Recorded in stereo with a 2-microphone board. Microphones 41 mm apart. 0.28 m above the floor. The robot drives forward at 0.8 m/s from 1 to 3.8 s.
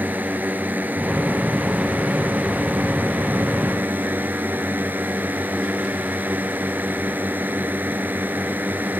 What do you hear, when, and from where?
0.0 s a drone: 50° right (ahead or behind); by 9.0 s 55° right (ahead or behind)